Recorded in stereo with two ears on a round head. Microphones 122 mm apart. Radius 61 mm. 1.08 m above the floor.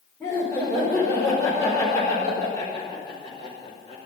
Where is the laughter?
5° left (ahead or behind), 4.5 m; by 4.0 s 35° left (ahead or behind), 5 m.